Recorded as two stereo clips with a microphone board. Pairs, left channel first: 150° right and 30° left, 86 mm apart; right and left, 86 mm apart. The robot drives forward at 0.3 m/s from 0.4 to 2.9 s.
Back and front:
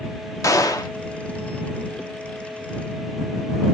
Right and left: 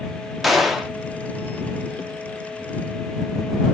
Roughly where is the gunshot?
Behind.